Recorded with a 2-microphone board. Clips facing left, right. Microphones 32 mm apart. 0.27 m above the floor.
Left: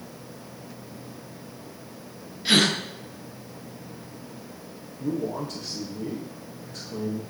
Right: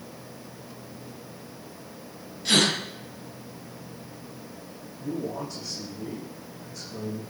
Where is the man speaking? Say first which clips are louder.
Left 3 dB; 80° left, 9.5 m.